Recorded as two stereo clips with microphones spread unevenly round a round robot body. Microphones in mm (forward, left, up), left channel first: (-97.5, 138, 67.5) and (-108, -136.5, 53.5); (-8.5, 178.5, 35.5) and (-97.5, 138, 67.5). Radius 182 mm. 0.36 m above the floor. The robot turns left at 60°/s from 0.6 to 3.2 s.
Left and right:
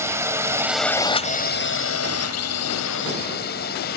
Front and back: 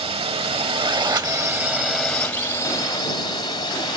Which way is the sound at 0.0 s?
170° right.